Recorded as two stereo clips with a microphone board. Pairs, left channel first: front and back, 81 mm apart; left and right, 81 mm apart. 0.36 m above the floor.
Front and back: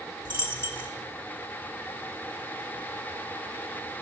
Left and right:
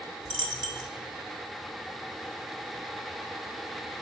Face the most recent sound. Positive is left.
turn(degrees=-65)